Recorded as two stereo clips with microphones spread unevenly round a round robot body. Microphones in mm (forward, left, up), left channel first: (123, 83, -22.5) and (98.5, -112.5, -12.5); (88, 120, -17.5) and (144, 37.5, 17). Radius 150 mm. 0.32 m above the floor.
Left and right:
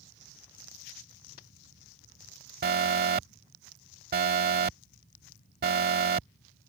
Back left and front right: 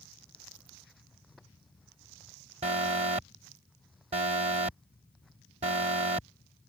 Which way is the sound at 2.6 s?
85° right.